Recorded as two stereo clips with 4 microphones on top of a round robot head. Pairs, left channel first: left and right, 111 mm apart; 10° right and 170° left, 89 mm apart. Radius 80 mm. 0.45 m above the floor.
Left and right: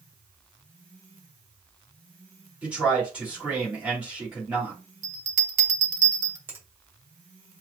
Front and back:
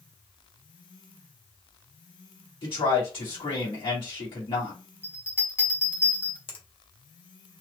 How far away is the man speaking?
About 3.5 m.